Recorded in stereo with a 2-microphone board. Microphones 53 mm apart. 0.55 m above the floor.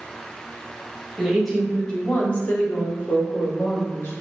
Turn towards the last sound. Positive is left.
turn(degrees=60)  # may be behind; listen again after turning